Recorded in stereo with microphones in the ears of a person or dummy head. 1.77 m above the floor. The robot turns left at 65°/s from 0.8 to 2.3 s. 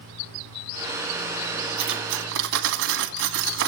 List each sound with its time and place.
1.8 s cutlery clinking: 60° right, 2 m; by 3.7 s 90° right, 2 m